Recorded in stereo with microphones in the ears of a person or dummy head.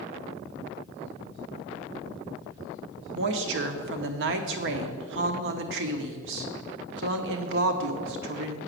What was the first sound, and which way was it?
A woman speaking, 65° right (ahead or behind).